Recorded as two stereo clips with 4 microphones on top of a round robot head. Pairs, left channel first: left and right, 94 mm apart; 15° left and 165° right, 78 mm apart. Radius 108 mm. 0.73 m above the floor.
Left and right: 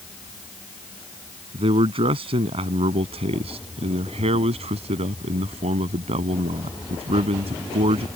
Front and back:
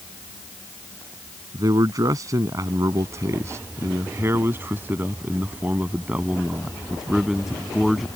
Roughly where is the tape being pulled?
I don't hear tape being pulled.